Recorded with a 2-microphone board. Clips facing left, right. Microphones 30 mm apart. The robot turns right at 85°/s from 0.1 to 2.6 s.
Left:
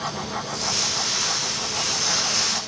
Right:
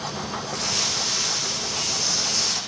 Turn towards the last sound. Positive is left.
turn(degrees=175)